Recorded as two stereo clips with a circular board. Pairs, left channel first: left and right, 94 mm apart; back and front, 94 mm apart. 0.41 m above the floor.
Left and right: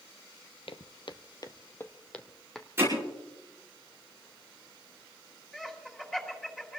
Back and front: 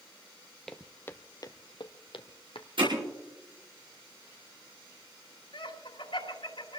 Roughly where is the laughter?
Behind.